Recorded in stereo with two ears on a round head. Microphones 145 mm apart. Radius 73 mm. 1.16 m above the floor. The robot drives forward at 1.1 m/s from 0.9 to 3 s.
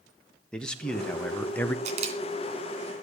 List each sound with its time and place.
0.5 s a man speaking: 5° left (ahead or behind), 1.6 m; by 1.8 s 10° left (ahead or behind), 0.9 m
1.9 s a camera shutter: 45° right (ahead or behind), 2.5 m; by 2.2 s 40° right (ahead or behind), 2.5 m